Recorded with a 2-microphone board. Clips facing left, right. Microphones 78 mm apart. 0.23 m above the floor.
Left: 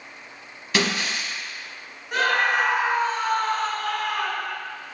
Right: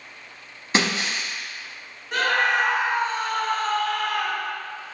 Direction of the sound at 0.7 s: 30° right (ahead or behind).